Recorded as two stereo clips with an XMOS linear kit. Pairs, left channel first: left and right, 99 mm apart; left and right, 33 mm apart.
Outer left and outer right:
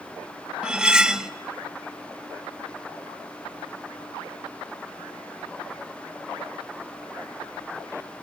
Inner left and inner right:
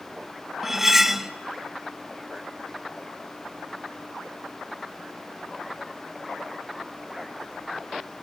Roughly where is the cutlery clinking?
Centre.